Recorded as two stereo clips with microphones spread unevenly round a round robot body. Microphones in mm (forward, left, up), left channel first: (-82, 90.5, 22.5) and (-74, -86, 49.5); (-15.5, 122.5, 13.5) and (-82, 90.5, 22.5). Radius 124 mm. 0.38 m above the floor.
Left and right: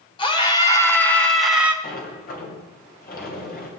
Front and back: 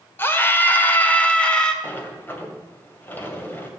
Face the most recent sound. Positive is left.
turn(degrees=80)